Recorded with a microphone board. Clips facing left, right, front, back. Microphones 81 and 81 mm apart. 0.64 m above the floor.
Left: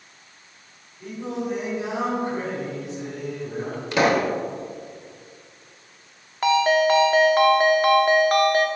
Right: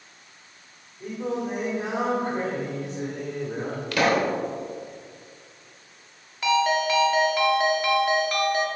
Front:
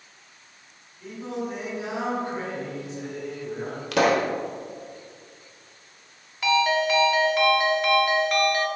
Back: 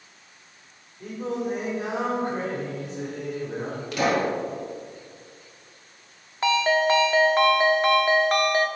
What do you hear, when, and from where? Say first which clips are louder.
1.0 s singing: right 1 dB, back 3 dB; 135° right, 2.5 m
3.9 s a pop: left 2 dB, front 2 dB; 20° left, 0.9 m
6.4 s a ringtone: left 4 dB, back 1 dB; 130° left, 0.8 m